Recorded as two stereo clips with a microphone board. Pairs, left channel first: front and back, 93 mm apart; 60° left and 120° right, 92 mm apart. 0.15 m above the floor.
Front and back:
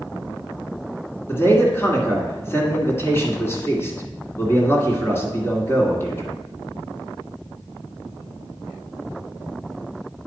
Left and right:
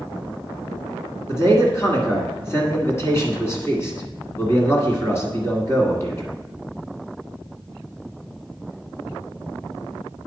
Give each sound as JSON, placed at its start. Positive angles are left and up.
{"t": 1.3, "sound": "a man speaking", "azimuth_deg": 35, "distance_m": 1.8}